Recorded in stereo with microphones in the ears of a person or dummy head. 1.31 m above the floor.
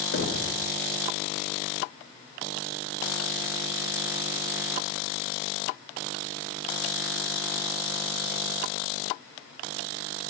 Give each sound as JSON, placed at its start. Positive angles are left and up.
{"t": 0.1, "sound": "knocking", "side_deg": 65, "distance_m": 1.1}